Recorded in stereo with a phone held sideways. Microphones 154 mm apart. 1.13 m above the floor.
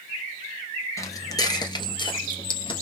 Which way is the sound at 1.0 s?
20° left (ahead or behind).